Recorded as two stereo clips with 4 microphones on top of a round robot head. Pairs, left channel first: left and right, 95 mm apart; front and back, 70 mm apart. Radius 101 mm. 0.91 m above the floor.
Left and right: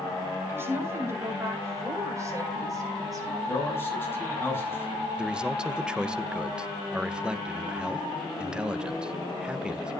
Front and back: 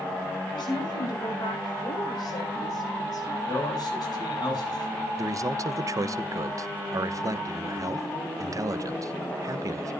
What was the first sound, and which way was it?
A woman speaking, 25° right.